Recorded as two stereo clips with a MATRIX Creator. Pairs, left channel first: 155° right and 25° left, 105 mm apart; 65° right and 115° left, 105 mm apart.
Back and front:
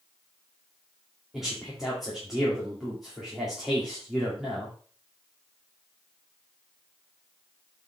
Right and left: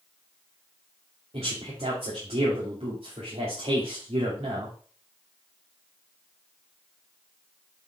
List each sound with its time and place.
1.3 s a man speaking: 110° left, 2.5 m